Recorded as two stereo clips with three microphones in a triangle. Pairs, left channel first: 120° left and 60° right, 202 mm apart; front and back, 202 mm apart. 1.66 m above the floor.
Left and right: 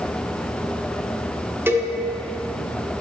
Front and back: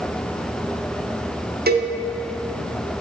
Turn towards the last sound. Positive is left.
turn(degrees=-140)